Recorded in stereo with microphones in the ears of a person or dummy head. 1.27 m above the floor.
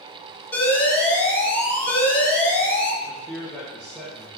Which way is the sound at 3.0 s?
Centre (ahead or behind).